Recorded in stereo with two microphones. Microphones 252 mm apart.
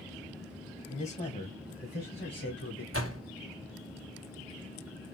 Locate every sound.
0.9 s a man speaking: 25° left (ahead or behind), 1.4 m; by 2.8 s 55° left (ahead or behind), 1.8 m
2.9 s a door slam: 55° right (ahead or behind), 1.3 m